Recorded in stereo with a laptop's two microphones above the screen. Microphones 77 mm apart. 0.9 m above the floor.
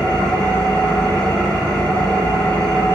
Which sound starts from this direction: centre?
An engine running, at 0.0 s.